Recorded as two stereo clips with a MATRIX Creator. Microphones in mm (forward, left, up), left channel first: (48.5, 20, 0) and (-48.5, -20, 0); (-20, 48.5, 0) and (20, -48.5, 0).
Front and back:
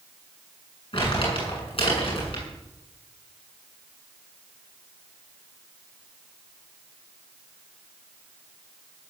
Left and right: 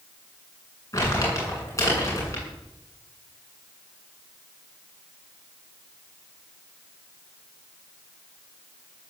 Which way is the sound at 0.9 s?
55° left.